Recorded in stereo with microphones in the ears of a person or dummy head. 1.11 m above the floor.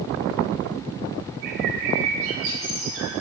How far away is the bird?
About 2.5 m.